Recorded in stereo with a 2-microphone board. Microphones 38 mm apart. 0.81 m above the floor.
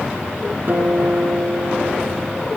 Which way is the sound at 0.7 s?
60° right (ahead or behind).